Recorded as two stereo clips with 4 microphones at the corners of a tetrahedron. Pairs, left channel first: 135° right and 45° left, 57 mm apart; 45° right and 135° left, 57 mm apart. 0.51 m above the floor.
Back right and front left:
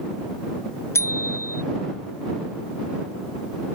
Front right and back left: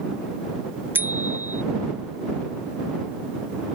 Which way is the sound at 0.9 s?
170° right.